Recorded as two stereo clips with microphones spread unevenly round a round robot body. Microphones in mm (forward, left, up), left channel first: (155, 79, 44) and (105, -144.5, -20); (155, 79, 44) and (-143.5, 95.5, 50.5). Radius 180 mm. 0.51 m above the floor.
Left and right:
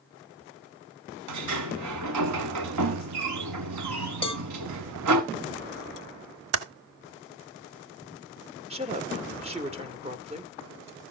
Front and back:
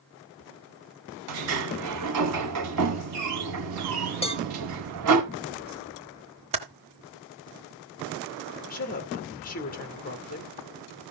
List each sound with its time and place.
1.3 s a sliding door: 135° right, 0.8 m
4.2 s a cowbell: 10° left, 1.2 m
6.5 s typing on a keyboard: 110° right, 0.8 m
8.7 s a woman speaking: 60° right, 1.7 m